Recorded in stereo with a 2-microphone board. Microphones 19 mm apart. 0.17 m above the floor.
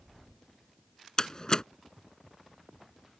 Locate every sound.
1.2 s a door slam: 35° left (ahead or behind)